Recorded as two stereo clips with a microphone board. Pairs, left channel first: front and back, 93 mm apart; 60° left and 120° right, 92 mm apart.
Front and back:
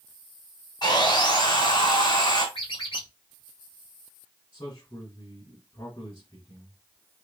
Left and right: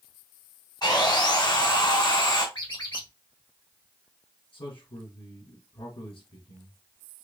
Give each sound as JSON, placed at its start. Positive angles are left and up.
{"t": 0.8, "sound": "sawing", "azimuth_deg": 30, "distance_m": 2.5}
{"t": 2.5, "sound": "a squeak", "azimuth_deg": 20, "distance_m": 2.0}
{"t": 4.5, "sound": "a man speaking", "azimuth_deg": 40, "distance_m": 3.0}